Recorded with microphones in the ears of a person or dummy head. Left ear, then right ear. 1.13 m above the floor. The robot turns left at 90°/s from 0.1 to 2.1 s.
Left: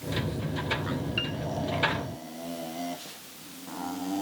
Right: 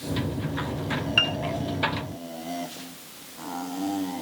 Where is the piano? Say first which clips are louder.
Right 11 dB; 45° right (ahead or behind); by 1.4 s 30° right (ahead or behind).